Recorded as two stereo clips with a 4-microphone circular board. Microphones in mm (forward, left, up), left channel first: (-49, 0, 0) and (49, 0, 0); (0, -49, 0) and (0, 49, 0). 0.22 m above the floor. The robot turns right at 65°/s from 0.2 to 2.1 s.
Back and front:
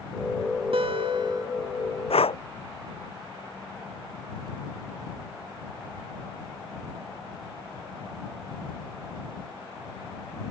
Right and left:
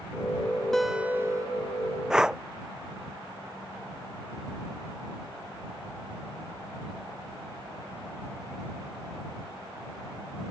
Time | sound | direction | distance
0.7 | a guitar | 5° right | ?
2.1 | breathing | 175° left | ?